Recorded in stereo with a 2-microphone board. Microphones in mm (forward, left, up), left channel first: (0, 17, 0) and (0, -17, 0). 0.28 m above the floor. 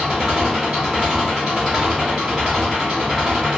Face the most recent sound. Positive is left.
turn(degrees=-15)  # may be behind; listen again after turning